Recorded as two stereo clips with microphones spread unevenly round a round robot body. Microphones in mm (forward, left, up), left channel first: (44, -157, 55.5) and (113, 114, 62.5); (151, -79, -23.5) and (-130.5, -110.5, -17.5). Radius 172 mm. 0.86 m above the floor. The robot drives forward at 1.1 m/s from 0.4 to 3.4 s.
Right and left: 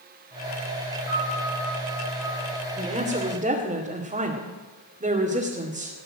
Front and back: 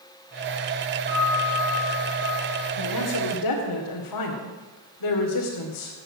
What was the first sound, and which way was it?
A piano, 65° right.